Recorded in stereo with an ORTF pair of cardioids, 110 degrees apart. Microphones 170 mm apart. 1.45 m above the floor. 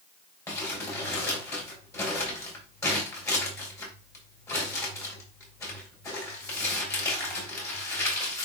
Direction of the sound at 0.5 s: 15° left.